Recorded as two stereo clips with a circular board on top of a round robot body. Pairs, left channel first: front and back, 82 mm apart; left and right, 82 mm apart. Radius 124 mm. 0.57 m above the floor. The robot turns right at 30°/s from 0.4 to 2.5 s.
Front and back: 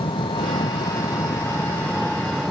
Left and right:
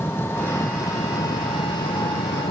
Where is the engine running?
25° left; by 2.5 s 90° left.